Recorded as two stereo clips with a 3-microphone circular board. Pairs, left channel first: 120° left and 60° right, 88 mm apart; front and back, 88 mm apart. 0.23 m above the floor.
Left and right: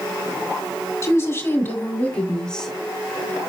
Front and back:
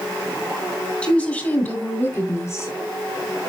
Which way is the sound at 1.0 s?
75° left.